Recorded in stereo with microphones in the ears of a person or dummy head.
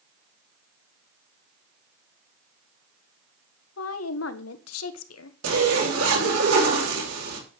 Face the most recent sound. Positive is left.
turn(degrees=-85)